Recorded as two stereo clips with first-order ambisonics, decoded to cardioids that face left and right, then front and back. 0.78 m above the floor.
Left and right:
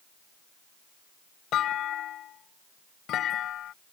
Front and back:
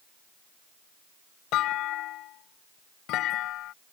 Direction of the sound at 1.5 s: 40° left.